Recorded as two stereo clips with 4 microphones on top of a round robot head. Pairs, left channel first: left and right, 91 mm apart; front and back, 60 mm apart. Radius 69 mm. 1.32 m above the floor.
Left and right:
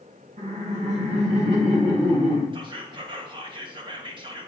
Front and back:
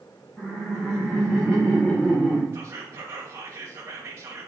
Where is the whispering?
125° right, 1.6 m.